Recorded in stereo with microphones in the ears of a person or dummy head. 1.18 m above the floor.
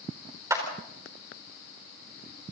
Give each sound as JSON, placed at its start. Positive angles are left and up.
{"t": 0.5, "sound": "a clap", "side_deg": -10, "distance_m": 4.0}